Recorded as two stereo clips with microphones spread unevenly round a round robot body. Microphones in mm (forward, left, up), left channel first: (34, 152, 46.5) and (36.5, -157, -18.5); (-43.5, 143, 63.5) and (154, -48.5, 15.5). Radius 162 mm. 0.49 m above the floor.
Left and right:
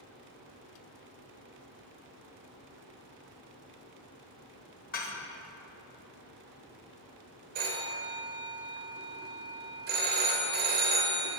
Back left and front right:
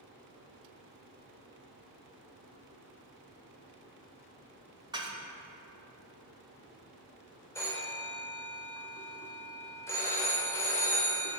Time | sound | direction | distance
4.9 | dishes clattering | 25° left | 1.3 m
7.5 | a phone ringing | 140° right | 1.1 m